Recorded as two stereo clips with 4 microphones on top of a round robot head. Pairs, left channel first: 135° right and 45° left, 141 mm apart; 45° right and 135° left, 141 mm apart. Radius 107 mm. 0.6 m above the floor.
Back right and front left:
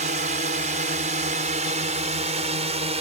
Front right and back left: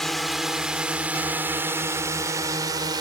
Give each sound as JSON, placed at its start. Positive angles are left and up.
{"t": 0.0, "sound": "a drone", "azimuth_deg": 45}